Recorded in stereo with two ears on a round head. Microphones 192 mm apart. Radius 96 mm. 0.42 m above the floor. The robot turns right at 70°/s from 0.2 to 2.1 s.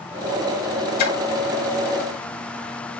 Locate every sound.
1.0 s a splash: 45° left (ahead or behind), 1.2 m; by 1.2 s 50° left (ahead or behind), 1.2 m